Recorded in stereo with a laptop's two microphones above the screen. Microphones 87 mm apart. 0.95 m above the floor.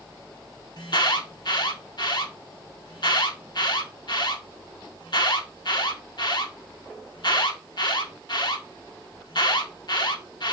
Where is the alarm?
60° left (ahead or behind), 1.4 m.